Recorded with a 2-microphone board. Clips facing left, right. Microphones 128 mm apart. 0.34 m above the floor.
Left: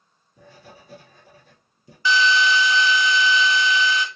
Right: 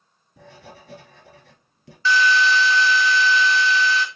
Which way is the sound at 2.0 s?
15° left (ahead or behind).